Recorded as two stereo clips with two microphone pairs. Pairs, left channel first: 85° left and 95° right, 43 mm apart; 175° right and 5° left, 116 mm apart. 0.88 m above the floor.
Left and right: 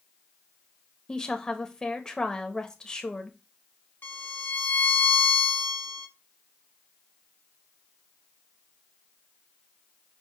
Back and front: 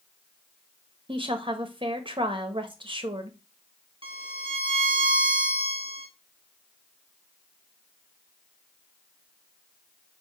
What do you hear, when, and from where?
1.1 s a woman speaking: 20° left, 1.3 m
4.0 s a violin: 45° left, 1.3 m